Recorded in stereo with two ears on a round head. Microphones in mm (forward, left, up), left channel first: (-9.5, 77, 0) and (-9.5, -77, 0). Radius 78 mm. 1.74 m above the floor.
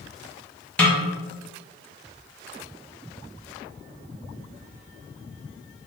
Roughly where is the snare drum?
Centre.